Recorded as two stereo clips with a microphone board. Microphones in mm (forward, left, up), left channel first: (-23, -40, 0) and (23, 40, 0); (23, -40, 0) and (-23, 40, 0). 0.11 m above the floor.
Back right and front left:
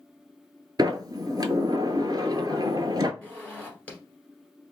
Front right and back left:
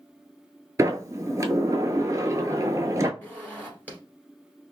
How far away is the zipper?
About 1.5 m.